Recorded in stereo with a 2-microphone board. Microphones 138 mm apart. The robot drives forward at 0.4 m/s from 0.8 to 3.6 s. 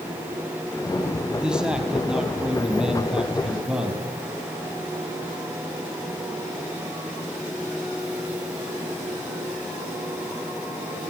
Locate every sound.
1.3 s a man speaking: 5° right (ahead or behind), 3 m